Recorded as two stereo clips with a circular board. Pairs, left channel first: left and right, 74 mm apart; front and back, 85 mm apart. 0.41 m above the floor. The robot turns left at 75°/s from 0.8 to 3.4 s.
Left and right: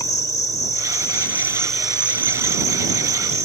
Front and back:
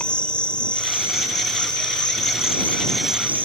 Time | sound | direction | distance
0.0 | an insect | 75° left | ?